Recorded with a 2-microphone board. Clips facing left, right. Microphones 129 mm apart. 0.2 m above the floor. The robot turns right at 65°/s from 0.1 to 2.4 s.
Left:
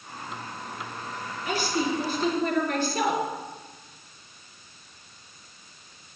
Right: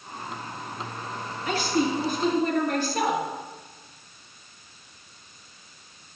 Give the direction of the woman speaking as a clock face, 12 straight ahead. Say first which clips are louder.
Right 2 dB; 5 o'clock.